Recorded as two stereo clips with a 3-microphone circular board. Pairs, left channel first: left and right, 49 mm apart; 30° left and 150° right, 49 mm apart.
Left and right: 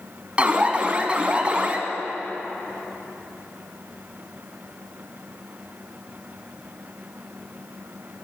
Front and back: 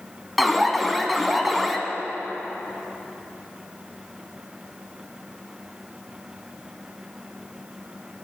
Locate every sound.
0.4 s an alarm: 60° right, 0.8 m